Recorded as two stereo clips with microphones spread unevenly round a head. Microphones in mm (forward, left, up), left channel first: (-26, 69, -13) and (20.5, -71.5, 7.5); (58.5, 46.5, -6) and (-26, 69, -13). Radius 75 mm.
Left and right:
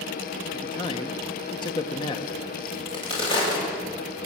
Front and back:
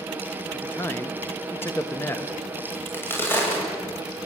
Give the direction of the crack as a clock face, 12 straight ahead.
10 o'clock.